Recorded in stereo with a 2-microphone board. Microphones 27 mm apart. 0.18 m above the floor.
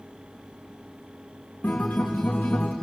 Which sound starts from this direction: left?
A guitar, at 1.6 s.